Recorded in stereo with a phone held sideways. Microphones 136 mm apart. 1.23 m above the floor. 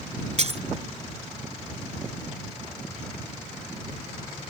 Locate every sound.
0.4 s breaking glass: 55° right (ahead or behind)